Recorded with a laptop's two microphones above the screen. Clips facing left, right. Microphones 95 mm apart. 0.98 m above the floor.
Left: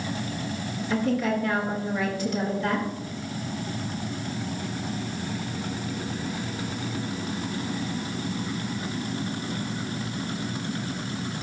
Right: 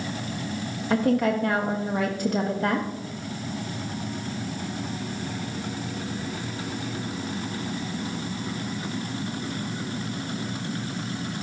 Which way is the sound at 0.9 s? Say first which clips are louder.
Right 3 dB; 50° right (ahead or behind).